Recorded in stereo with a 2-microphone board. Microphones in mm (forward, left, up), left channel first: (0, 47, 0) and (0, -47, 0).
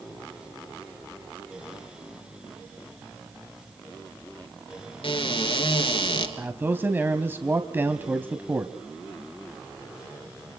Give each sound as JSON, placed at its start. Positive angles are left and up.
{"t": 5.0, "sound": "a cupboard door", "side_deg": 70, "distance_m": 3.0}
{"t": 6.4, "sound": "a man speaking", "side_deg": -20, "distance_m": 1.5}